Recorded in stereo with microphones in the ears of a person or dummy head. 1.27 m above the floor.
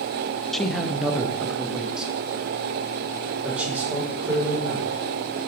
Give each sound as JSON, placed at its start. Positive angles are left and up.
{"t": 0.5, "sound": "a man speaking", "side_deg": 0, "distance_m": 0.6}